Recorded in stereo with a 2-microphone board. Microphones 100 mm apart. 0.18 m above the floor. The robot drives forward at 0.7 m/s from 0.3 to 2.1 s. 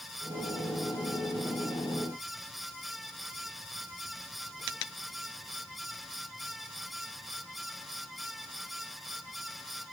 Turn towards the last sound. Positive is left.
No sound to turn to.